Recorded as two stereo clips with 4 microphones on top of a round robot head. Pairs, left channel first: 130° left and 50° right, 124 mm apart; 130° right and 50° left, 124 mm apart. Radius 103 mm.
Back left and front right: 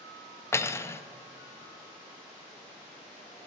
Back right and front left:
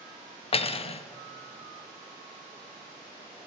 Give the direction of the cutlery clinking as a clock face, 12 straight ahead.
5 o'clock.